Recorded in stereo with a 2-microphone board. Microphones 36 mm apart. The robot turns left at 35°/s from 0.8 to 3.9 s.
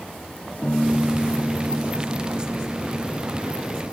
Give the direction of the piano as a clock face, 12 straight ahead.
11 o'clock.